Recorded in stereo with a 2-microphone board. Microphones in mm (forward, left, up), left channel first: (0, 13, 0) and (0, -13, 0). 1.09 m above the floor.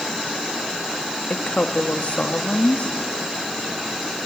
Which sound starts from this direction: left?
A woman speaking, at 1.3 s.